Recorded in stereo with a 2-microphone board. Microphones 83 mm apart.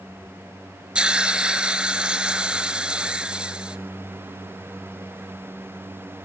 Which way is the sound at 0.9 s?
10° right (ahead or behind).